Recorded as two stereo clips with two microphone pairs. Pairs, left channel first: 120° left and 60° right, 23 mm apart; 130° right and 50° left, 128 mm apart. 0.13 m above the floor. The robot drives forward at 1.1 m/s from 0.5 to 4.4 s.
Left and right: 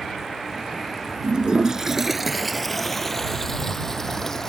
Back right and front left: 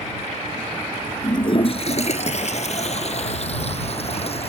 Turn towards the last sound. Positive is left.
turn(degrees=-170)